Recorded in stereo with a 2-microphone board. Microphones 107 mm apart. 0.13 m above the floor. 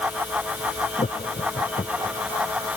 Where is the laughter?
85° left.